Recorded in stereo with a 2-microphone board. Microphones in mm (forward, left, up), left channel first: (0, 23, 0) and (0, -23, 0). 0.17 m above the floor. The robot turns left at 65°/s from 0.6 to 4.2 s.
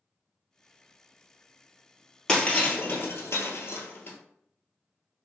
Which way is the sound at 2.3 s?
15° left (ahead or behind).